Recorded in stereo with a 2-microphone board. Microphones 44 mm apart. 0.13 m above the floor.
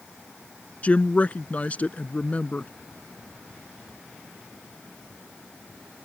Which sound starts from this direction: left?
A woman speaking, at 0.8 s.